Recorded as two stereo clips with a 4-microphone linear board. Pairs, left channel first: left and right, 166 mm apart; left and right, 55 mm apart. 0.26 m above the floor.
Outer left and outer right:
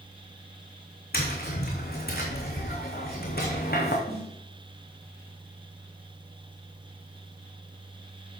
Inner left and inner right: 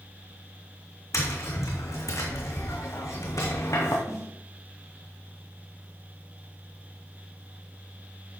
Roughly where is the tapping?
Left.